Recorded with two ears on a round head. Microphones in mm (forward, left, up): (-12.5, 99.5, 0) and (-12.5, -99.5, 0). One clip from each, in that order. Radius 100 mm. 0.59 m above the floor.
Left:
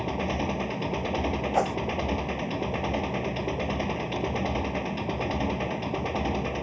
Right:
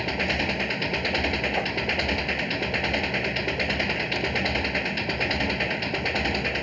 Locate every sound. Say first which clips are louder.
0.0 s an engine running: right 4 dB; 80° right
1.5 s a whoosh: left 1 dB; 65° left (ahead or behind)